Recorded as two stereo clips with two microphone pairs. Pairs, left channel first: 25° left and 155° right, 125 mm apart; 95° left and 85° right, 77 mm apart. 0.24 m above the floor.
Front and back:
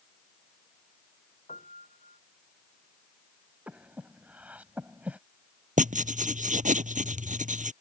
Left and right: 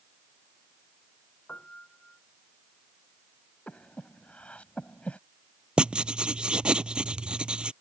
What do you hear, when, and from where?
1.5 s a piano: 20° left
3.7 s breathing: 140° left
5.8 s writing: 160° right